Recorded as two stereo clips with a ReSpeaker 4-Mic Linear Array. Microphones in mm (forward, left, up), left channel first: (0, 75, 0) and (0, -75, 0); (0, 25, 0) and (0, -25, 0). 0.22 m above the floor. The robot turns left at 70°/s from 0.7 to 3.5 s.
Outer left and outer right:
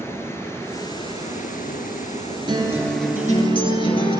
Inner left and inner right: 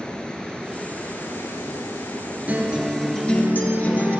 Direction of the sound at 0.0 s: 160° left.